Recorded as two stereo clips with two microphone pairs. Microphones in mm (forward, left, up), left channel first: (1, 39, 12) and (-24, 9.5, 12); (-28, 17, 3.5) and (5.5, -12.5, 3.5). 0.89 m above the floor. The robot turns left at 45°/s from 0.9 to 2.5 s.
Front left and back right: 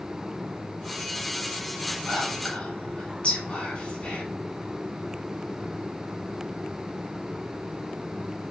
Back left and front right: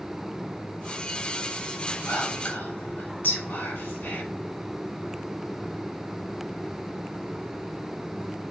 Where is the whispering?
125° left, 1.7 m; by 4.2 s 105° left, 1.7 m.